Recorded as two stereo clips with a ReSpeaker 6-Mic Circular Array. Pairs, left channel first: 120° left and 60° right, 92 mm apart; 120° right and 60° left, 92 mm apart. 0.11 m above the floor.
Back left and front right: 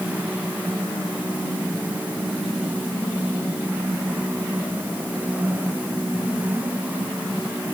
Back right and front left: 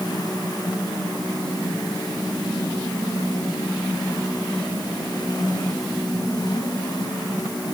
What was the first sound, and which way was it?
Only background noise.